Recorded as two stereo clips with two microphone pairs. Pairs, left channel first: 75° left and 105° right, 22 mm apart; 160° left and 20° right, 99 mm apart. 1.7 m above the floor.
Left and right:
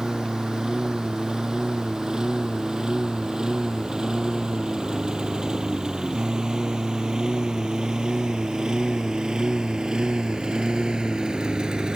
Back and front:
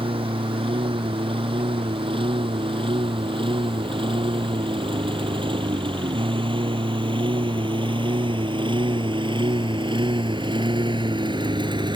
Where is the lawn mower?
50° right; by 12.0 s 55° right.